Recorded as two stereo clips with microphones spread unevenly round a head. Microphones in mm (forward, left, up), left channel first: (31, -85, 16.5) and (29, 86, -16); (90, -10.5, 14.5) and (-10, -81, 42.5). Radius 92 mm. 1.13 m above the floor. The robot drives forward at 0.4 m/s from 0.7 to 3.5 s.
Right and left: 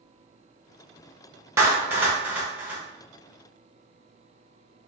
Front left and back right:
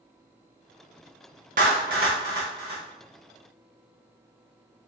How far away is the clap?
About 0.6 m.